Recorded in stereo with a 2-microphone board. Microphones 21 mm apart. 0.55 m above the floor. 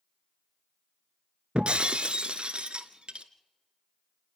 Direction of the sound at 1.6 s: 50° right (ahead or behind).